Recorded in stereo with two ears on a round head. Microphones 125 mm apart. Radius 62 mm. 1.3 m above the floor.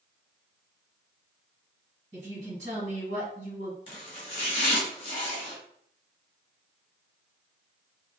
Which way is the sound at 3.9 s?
40° left (ahead or behind).